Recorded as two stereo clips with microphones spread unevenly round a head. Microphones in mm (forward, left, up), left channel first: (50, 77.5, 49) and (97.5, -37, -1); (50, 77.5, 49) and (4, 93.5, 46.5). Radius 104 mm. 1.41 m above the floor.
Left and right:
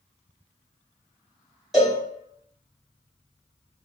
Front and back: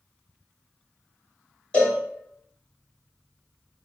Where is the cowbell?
40° left, 1.8 m.